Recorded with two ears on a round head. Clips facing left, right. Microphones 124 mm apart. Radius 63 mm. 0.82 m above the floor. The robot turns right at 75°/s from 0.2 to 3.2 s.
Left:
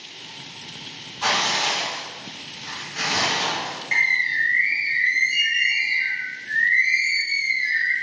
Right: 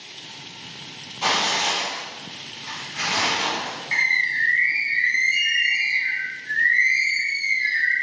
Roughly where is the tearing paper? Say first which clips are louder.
Even; ahead right.